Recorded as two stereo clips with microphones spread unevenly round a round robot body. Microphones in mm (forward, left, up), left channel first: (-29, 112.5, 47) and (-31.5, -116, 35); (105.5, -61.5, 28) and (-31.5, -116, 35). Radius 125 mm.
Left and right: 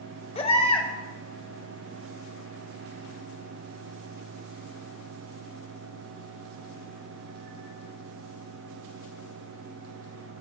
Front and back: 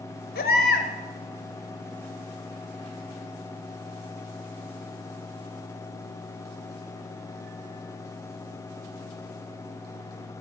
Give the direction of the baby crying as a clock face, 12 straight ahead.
11 o'clock.